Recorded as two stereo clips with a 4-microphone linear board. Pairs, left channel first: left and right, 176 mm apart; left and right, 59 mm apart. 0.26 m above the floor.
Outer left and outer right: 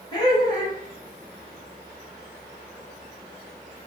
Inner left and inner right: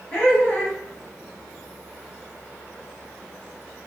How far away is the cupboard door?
I don't hear a cupboard door.